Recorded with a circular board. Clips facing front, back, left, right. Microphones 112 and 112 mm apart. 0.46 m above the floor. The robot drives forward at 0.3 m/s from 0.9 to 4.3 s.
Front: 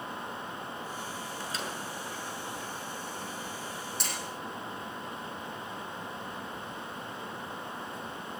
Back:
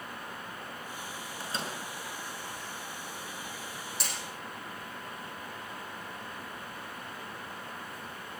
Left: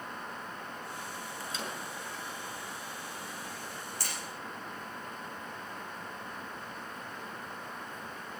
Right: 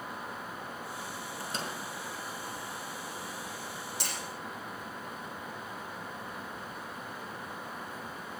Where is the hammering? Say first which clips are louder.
Even, right 2 dB; 90° right, 9 m; by 4.1 s 95° right, 9 m.